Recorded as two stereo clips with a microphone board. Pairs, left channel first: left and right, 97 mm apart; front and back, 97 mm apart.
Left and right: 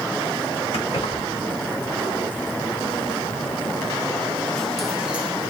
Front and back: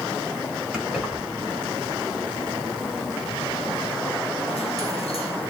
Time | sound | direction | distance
0.7 | keys jangling | 100° left | 2 m